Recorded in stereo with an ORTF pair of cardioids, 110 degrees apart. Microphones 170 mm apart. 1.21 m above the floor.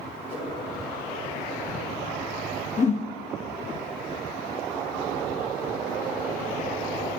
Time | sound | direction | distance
0.3 | a whoosh | 60° left | 3.5 m
2.8 | a whoosh | 40° left | 1.1 m